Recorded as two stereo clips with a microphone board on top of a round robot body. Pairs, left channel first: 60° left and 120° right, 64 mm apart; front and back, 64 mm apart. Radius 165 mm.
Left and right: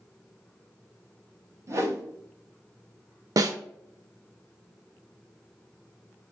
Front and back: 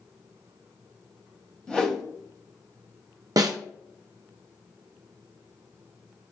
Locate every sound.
1.7 s a whoosh: 75° right, 0.9 m
3.4 s a snare drum: 150° right, 0.5 m